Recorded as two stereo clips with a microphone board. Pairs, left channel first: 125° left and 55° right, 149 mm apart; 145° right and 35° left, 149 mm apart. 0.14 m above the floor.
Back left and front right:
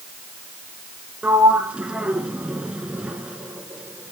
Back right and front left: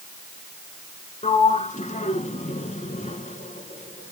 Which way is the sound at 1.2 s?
135° right.